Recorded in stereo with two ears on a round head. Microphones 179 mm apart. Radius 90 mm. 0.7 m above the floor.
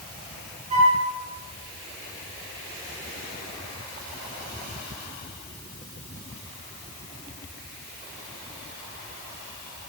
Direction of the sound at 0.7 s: 35° right (ahead or behind).